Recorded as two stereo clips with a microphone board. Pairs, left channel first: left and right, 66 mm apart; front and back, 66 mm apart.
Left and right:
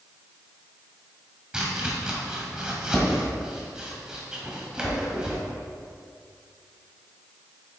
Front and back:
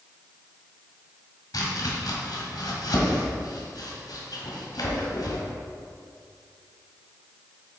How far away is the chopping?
About 1.7 m.